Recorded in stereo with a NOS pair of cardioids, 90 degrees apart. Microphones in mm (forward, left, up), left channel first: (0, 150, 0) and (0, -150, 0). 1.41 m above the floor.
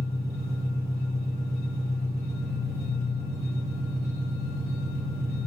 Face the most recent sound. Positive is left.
turn(degrees=-10)